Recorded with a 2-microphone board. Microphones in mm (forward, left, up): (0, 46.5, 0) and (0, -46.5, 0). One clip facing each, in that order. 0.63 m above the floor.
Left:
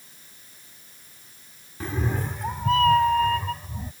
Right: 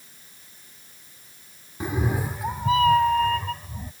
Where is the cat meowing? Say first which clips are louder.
Right 2 dB; 15° right (ahead or behind); by 3.9 s 5° left (ahead or behind).